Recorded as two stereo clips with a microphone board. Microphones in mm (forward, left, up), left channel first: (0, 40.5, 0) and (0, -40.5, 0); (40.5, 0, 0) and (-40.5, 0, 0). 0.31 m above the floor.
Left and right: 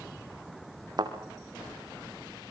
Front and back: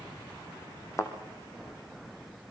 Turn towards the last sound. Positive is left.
turn(degrees=-50)